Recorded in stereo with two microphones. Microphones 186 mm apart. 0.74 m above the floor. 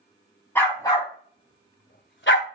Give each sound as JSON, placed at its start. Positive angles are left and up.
{"t": 0.6, "sound": "a dog barking", "side_deg": 10, "distance_m": 2.5}